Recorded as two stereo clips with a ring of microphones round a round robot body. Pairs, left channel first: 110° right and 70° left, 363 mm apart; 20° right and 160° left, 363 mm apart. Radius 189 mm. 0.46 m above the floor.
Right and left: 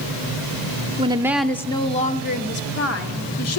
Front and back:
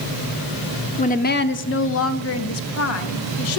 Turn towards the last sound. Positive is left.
turn(degrees=-70)